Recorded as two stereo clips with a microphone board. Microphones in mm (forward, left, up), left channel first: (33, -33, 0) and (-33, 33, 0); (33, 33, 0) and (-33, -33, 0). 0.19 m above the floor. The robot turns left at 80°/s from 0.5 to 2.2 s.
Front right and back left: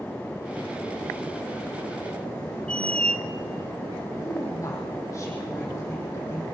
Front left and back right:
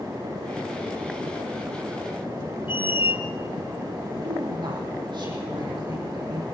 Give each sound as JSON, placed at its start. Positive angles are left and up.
{"t": 2.7, "sound": "a squeak", "azimuth_deg": 30, "distance_m": 1.2}
{"t": 4.2, "sound": "a woman speaking", "azimuth_deg": -100, "distance_m": 9.5}